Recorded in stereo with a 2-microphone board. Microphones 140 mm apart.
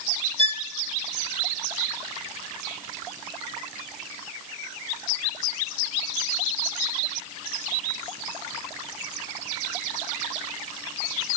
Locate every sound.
0.4 s a violin: 45° left (ahead or behind), 0.8 m